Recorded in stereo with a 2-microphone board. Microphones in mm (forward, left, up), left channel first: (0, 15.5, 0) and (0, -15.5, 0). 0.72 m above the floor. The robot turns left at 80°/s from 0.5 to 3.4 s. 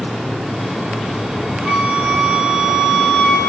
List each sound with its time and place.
1.6 s a flute: 90° right, 1.6 m; by 3.5 s 130° left, 1.6 m